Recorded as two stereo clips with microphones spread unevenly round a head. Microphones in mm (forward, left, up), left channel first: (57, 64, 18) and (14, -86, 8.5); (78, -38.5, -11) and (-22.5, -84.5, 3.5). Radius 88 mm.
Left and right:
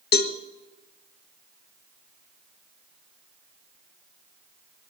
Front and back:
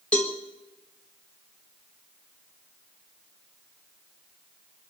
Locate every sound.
0.1 s a cowbell: 110° left, 1.1 m